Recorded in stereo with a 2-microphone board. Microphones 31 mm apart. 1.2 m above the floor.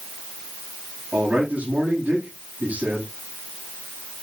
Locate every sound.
1.1 s a man speaking: 55° right (ahead or behind), 8.5 m